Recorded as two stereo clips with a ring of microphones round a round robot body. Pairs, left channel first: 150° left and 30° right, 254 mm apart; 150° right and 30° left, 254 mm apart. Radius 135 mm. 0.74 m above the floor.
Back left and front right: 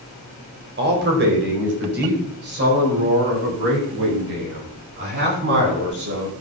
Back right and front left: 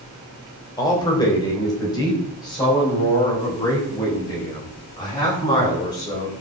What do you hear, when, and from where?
0.8 s a man speaking: 75° right, 4 m